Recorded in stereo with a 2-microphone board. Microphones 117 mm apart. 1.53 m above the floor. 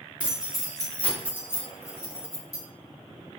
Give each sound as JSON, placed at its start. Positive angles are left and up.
{"t": 0.2, "sound": "keys jangling", "side_deg": -10, "distance_m": 0.7}